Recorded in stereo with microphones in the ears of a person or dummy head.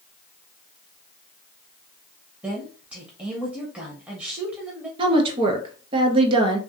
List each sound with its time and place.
2.4 s a woman speaking: 15° right (ahead or behind), 0.5 m
5.0 s a woman speaking: 30° right (ahead or behind), 0.7 m